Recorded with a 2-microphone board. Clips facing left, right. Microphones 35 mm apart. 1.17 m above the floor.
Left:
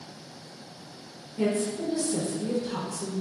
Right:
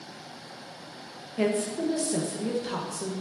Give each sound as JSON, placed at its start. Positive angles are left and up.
{"t": 1.4, "sound": "a woman speaking", "side_deg": -60, "distance_m": 0.9}